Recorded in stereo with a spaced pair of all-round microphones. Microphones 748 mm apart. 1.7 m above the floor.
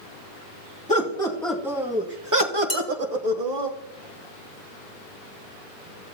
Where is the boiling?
I don't hear boiling.